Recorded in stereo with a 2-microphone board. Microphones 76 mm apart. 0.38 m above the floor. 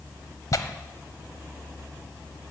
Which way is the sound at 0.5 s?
50° left (ahead or behind).